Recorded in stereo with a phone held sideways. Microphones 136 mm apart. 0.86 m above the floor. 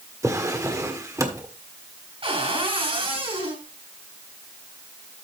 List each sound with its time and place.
0.2 s a drawer: 25° right (ahead or behind), 1.7 m
2.2 s a cupboard door: 45° right (ahead or behind), 3 m